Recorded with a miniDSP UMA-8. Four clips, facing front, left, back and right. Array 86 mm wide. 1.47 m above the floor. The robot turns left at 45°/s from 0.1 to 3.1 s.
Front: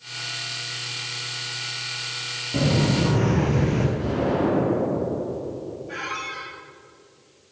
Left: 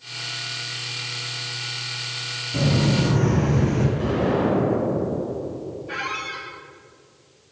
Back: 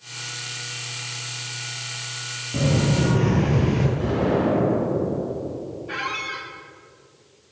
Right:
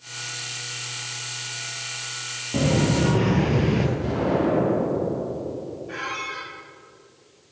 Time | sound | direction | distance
2.5 | footsteps | 70° right | 1.8 m
4.0 | an explosion | 120° left | 4 m
5.9 | a squeak | 155° left | 1.6 m